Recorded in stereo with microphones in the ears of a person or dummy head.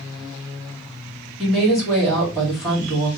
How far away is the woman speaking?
About 2.5 m.